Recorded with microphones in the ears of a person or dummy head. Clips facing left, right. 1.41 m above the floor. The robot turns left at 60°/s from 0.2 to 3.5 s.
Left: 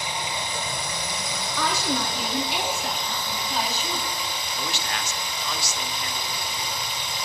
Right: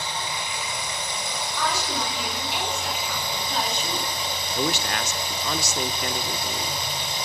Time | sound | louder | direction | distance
0.0 | running water | left 1 dB | 160° left | 3 m
1.6 | a woman speaking | left 2 dB | 120° left | 3 m
4.5 | a man speaking | right 7 dB | 45° right (ahead or behind) | 0.7 m